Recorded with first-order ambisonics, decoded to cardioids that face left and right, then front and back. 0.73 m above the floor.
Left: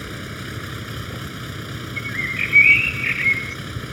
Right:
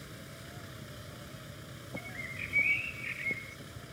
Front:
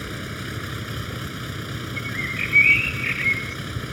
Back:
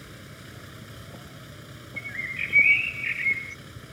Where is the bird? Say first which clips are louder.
Left 17 dB, front 3 dB; 80° left.